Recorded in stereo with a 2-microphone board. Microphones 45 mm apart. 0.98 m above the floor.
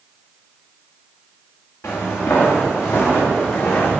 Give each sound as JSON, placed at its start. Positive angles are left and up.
{"t": 1.8, "sound": "footsteps", "side_deg": 75, "distance_m": 5.0}